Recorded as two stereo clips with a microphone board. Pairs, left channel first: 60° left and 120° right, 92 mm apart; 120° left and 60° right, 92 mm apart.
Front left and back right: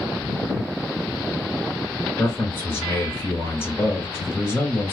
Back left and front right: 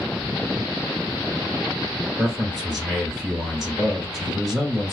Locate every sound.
2.2 s a man speaking: 30° left, 1.6 m